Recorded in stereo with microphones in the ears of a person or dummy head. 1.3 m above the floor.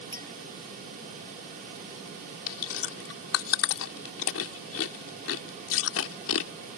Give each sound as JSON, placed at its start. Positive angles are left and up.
{"t": 0.1, "sound": "a clink", "side_deg": 15}
{"t": 2.5, "sound": "chewing", "side_deg": 75}